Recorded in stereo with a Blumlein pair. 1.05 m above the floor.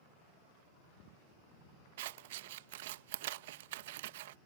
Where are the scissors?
55° right.